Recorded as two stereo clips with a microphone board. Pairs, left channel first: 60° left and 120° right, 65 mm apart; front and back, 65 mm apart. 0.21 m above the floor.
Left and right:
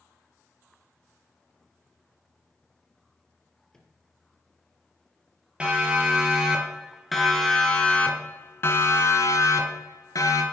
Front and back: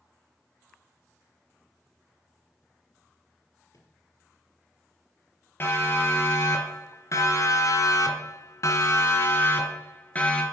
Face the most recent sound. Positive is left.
turn(degrees=65)